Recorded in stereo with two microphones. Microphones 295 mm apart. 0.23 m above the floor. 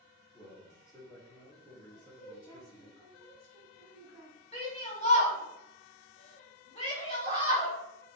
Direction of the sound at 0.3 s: 15° left (ahead or behind).